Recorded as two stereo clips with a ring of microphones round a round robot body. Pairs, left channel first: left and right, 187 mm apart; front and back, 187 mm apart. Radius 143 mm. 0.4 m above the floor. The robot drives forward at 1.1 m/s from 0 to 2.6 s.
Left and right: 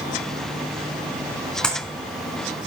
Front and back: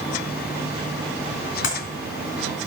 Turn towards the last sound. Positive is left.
turn(degrees=5)